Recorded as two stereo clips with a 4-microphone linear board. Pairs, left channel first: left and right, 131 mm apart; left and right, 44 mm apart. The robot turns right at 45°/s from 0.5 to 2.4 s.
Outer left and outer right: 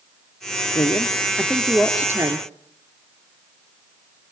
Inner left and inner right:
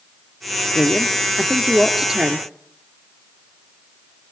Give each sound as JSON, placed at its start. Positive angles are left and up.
{"t": 0.8, "sound": "a woman speaking", "azimuth_deg": 140, "distance_m": 2.0}